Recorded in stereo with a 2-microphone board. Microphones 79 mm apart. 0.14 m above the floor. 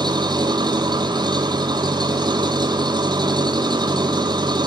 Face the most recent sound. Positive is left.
turn(degrees=-65)  # may be behind; listen again after turning